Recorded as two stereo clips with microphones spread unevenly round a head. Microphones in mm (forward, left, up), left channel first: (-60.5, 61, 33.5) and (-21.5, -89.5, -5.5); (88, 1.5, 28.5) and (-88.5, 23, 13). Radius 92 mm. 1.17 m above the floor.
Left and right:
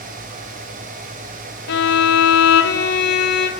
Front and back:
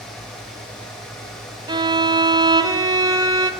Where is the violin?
100° left, 2.5 m.